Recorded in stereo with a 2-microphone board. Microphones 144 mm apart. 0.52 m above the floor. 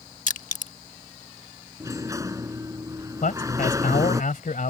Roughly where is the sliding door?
Right.